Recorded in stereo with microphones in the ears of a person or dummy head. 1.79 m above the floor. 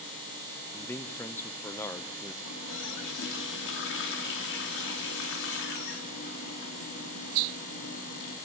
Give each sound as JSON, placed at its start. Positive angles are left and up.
{"t": 0.7, "sound": "a man speaking", "side_deg": 15, "distance_m": 1.0}
{"t": 2.5, "sound": "a running tap", "side_deg": 65, "distance_m": 2.5}